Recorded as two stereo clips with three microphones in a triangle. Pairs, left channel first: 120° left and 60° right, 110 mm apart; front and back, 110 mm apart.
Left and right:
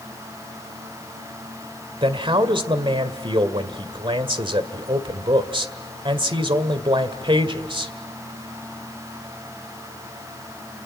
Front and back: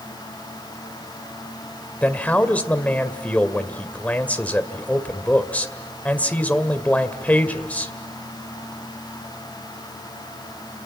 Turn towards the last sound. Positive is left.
turn(degrees=-70)